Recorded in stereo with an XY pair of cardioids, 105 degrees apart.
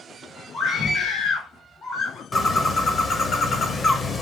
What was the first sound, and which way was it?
A scream, 60° left.